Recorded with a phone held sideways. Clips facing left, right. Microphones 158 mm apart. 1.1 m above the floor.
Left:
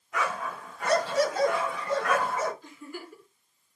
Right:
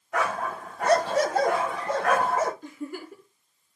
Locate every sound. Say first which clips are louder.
0.1 s a dog barking: right 4 dB; 65° right (ahead or behind), 3 m
2.6 s a giggle: right 6 dB; 60° right (ahead or behind), 3 m